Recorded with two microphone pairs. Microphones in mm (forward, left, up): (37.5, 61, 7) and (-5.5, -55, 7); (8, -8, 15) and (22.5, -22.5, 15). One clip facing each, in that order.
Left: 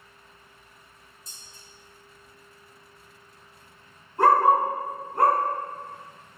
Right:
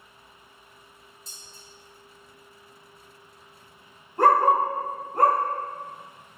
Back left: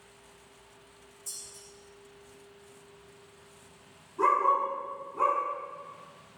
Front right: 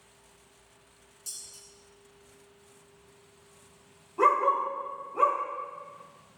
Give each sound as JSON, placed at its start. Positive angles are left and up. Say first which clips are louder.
{"t": 1.3, "sound": "dishes clattering", "louder": "right 2 dB, front right 1 dB", "azimuth_deg": -55, "distance_m": 1.8}
{"t": 4.2, "sound": "a dog barking", "louder": "even, front right 1 dB", "azimuth_deg": -65, "distance_m": 2.0}